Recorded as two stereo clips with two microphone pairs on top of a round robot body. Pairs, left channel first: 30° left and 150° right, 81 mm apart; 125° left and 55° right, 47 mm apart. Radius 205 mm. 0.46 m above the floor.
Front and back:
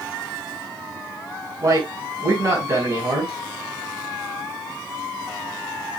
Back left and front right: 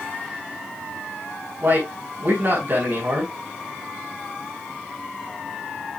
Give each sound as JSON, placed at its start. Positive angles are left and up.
{"t": 1.6, "sound": "a man speaking", "azimuth_deg": -100, "distance_m": 6.0}